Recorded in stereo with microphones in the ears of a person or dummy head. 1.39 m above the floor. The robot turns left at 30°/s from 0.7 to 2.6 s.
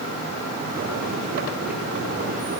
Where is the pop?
I don't hear a pop.